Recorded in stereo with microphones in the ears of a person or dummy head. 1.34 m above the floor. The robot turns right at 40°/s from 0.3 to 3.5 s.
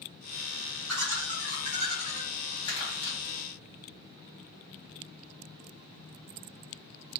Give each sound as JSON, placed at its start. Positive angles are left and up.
{"t": 0.9, "sound": "laughter", "azimuth_deg": -75, "distance_m": 1.6}
{"t": 2.6, "sound": "crumpling", "side_deg": 25, "distance_m": 1.8}